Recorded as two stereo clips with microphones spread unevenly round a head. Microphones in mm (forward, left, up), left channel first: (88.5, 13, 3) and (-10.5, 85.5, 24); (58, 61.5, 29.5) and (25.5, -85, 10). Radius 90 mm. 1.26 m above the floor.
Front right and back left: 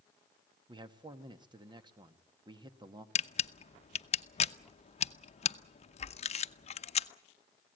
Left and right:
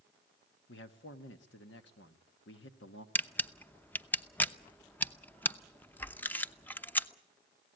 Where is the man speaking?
90° left, 1.6 m.